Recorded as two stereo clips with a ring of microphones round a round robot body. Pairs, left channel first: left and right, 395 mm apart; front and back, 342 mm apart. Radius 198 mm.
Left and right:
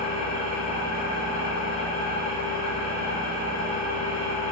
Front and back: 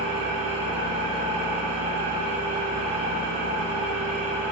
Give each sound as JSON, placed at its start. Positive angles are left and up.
{"t": 0.0, "sound": "an engine running", "azimuth_deg": 165, "distance_m": 1.7}